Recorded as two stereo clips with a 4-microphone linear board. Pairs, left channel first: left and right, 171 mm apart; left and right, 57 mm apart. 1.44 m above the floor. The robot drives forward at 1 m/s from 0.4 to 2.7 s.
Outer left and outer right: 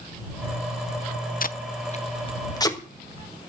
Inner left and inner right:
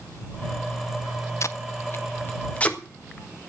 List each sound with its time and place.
1.4 s tape being pulled: 55° left (ahead or behind), 0.6 m; by 2.8 s 20° left (ahead or behind), 1.3 m